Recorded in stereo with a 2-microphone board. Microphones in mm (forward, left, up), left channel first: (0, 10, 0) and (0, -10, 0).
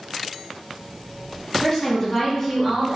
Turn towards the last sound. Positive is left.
turn(degrees=15)  # may be behind; listen again after turning